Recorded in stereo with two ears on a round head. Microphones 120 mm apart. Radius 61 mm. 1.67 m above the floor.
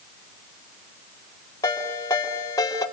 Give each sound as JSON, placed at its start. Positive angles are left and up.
{"t": 1.6, "sound": "a ringtone", "side_deg": 25, "distance_m": 5.5}